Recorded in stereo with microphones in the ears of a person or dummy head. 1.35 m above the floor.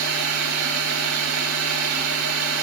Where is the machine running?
70° right (ahead or behind), 8 m.